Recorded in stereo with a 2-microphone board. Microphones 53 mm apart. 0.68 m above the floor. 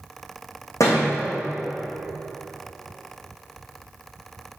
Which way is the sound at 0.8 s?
75° left (ahead or behind).